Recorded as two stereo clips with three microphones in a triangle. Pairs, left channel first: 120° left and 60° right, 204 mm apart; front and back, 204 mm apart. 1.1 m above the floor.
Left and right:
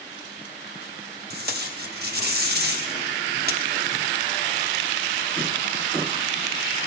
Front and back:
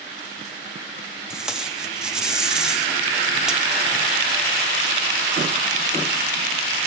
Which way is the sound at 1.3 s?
95° right.